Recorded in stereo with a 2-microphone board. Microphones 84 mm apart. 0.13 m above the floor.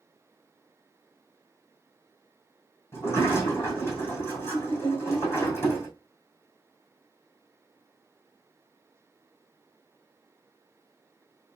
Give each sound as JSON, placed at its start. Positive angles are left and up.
{"t": 2.9, "sound": "a sliding door", "side_deg": 25, "distance_m": 2.5}